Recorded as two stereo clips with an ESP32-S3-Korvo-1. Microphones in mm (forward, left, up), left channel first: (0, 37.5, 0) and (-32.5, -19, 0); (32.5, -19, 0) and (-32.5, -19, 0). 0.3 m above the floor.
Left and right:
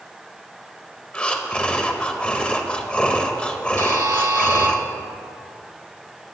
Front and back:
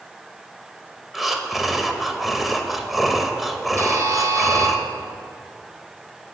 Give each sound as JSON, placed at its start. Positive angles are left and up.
{"t": 1.1, "sound": "breathing", "azimuth_deg": 95, "distance_m": 0.6}
{"t": 3.8, "sound": "a buzzer", "azimuth_deg": -145, "distance_m": 0.8}